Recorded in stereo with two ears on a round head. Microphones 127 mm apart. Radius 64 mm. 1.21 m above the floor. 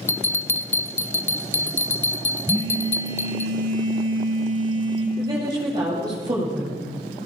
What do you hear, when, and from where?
0.1 s a bell: 15° left (ahead or behind), 0.7 m
2.5 s a phone buzzing: 30° right (ahead or behind), 5.5 m
5.2 s a woman speaking: 30° right (ahead or behind), 7.5 m